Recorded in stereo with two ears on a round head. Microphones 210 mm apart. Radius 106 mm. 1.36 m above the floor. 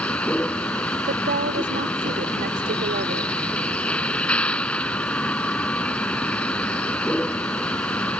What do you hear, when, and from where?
0.0 s a vehicle: 5° left (ahead or behind)
1.1 s a woman speaking: 40° right (ahead or behind)